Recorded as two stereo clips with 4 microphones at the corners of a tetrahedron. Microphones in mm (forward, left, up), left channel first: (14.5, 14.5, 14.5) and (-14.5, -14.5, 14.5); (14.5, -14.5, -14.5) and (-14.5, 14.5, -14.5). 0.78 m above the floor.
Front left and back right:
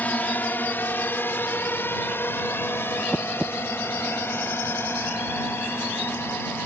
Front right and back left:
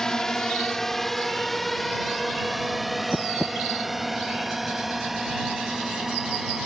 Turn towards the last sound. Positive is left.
turn(degrees=50)